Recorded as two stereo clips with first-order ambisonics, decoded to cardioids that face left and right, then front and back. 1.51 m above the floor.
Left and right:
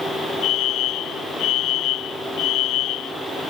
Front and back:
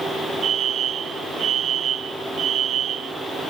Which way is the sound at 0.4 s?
125° left.